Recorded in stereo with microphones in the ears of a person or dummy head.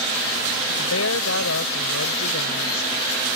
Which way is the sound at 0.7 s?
80° left.